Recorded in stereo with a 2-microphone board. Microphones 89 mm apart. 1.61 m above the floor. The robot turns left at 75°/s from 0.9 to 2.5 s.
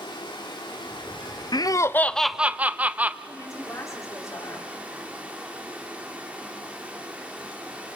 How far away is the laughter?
About 0.6 m.